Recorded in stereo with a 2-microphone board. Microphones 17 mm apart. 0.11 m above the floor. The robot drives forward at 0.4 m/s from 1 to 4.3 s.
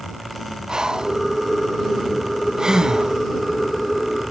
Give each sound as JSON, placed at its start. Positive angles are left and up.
{"t": 0.7, "sound": "breathing", "side_deg": -50}